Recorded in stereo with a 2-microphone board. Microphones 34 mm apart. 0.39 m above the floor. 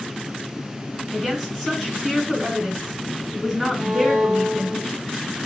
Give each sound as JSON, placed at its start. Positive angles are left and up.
{"t": 1.1, "sound": "a woman speaking", "side_deg": -5, "distance_m": 4.0}
{"t": 3.8, "sound": "a violin", "side_deg": -5, "distance_m": 3.5}